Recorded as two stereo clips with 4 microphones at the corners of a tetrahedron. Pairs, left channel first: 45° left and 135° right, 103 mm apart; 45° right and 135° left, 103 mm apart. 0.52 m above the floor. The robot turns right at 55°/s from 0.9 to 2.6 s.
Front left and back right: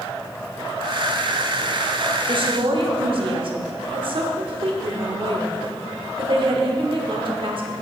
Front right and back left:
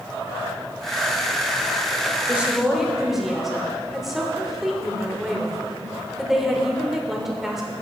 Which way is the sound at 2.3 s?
155° right.